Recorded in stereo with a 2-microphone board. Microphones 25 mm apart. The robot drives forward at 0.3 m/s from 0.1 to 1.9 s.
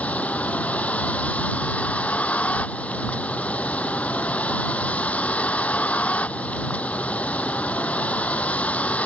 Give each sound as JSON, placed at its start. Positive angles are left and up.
{"t": 0.0, "sound": "a vehicle", "side_deg": 70}